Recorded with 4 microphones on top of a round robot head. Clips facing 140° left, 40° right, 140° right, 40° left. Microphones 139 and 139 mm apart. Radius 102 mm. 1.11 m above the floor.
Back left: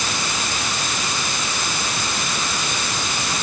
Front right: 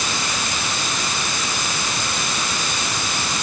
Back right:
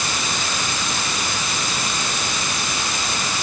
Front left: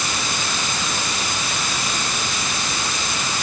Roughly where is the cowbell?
No cowbell in this recording.